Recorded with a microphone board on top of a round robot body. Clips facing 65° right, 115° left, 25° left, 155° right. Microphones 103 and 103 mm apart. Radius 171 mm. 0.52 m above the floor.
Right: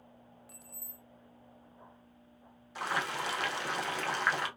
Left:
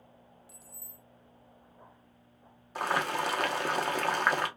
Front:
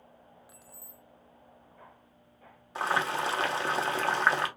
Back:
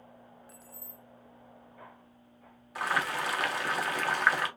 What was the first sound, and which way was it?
Keys jangling, 55° right.